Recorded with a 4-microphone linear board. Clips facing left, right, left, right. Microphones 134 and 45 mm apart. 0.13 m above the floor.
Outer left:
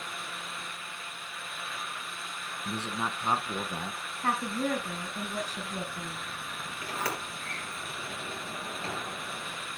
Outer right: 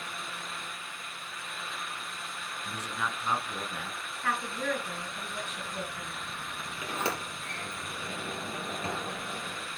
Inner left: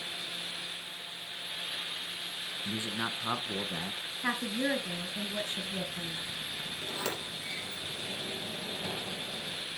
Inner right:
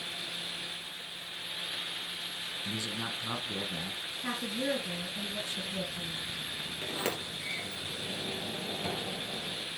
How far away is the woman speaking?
About 2 m.